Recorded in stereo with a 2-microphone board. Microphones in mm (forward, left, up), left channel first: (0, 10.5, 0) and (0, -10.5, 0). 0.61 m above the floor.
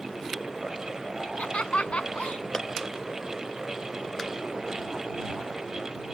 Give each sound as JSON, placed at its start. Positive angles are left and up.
{"t": 1.2, "sound": "laughter", "side_deg": 70}
{"t": 2.5, "sound": "a clap", "side_deg": 30}